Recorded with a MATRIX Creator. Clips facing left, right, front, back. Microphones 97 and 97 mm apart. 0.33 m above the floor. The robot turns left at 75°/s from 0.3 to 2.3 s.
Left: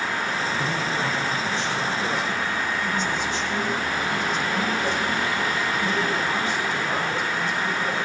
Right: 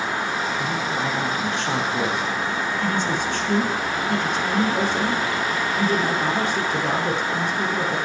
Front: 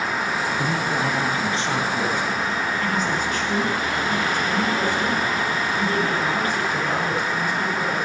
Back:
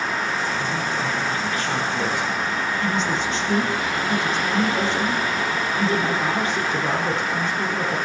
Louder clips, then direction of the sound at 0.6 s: Right 1 dB, front 2 dB; 10° left.